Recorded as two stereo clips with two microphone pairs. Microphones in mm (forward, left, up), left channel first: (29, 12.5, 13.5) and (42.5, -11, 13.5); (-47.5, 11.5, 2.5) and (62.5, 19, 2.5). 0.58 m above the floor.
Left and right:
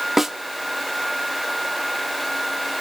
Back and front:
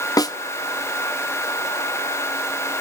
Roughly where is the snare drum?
Behind right.